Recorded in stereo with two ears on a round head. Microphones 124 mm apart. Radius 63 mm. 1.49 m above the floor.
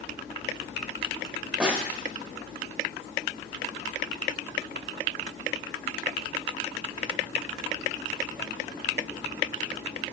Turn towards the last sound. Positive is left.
turn(degrees=-10)  # may be behind; listen again after turning